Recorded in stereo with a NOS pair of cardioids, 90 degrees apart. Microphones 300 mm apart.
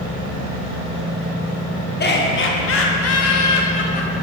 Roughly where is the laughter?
Ahead left.